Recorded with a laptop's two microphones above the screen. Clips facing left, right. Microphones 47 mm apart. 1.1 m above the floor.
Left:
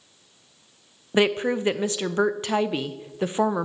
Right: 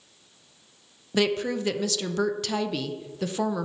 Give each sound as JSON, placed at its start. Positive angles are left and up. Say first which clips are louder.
{"t": 1.1, "sound": "a woman speaking", "louder": "left 3 dB", "side_deg": 25, "distance_m": 0.6}